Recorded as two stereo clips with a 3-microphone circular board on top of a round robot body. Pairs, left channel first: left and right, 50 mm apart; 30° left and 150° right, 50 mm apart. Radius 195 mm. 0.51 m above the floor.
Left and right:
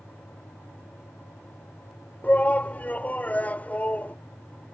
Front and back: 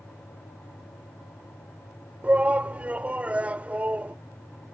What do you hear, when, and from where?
2.2 s a shout: 150° left